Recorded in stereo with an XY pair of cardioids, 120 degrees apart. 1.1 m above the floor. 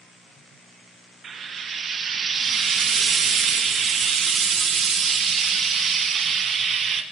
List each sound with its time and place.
1.2 s frying: 40° right, 0.8 m